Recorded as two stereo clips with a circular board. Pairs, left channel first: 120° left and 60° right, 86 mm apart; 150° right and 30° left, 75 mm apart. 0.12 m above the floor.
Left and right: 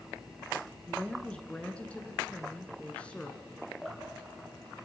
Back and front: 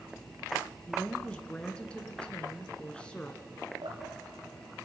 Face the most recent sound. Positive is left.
turn(degrees=35)